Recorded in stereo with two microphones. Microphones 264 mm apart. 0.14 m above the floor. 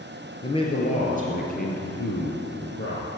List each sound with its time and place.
0.4 s a man speaking: 20° left (ahead or behind), 2.5 m; by 3.1 s 55° left (ahead or behind), 3.5 m